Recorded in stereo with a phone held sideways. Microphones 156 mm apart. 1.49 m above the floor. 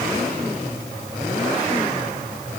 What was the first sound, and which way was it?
Only background noise.